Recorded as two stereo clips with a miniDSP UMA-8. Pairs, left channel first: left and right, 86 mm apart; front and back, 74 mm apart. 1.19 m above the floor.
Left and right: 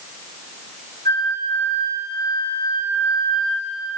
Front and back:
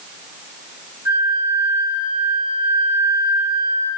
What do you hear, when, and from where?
1.1 s a flute: 125° left, 4 m